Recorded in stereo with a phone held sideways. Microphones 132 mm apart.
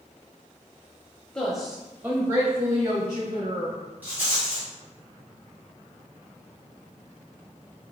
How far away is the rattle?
About 1.9 m.